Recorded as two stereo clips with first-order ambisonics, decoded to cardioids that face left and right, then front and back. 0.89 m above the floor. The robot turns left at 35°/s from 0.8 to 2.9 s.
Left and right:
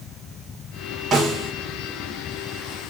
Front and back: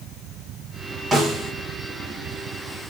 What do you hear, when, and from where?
1.1 s a snare drum: 125° right, 0.7 m; by 1.5 s 140° right, 0.7 m